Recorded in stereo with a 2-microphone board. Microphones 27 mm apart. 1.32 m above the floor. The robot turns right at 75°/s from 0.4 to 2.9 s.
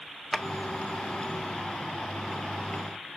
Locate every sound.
0.3 s a drawer: 5° left (ahead or behind), 0.5 m; by 0.5 s centre (ahead or behind), 0.5 m